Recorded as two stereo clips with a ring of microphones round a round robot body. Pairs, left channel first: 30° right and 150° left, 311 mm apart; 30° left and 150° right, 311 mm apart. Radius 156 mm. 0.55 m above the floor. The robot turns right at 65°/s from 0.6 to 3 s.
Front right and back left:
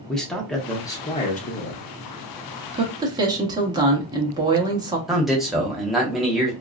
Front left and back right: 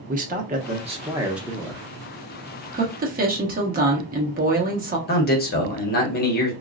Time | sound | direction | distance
0.1 | a man speaking | 115° right | 0.7 m
2.7 | a woman speaking | 165° right | 0.9 m
5.1 | a man speaking | 60° left | 0.9 m